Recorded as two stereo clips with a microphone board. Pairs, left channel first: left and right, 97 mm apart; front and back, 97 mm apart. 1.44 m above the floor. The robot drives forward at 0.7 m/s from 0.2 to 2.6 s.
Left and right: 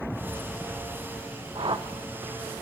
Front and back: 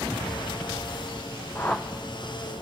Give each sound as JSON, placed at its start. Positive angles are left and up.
{"t": 1.6, "sound": "a whoosh", "azimuth_deg": -65, "distance_m": 0.8}